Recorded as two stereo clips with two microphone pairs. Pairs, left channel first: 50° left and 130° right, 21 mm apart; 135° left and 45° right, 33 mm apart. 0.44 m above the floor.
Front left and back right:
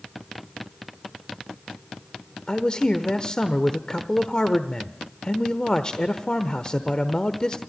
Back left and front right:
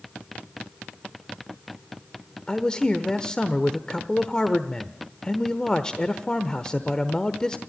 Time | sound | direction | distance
2.5 | a man speaking | 80° left | 1.0 m